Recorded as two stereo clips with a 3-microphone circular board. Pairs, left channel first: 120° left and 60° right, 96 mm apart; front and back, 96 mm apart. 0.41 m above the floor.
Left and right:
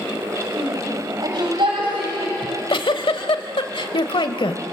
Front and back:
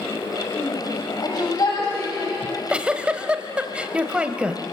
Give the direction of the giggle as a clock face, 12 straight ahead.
9 o'clock.